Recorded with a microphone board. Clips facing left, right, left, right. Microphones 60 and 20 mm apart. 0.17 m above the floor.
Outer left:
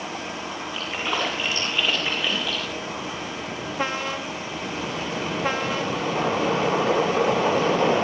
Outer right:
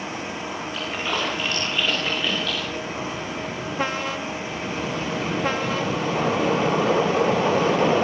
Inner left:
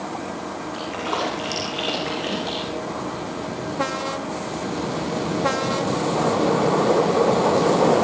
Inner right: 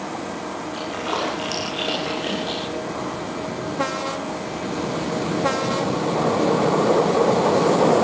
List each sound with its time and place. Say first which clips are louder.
0.7 s a splash: even, even; 5° left (ahead or behind), 7.5 m